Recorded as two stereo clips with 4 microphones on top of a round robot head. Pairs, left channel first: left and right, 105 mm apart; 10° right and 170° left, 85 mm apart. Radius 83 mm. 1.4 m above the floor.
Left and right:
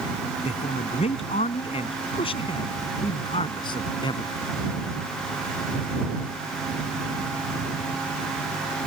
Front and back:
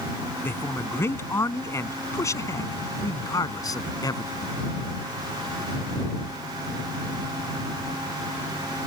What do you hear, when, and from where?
0.4 s a man speaking: 55° left; by 4.3 s 35° left